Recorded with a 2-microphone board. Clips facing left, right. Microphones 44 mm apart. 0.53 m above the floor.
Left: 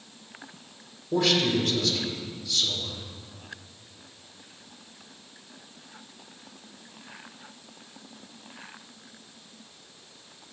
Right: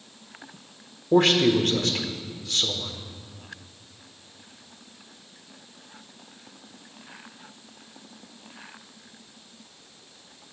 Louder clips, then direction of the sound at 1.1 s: Right 5 dB; 50° right (ahead or behind).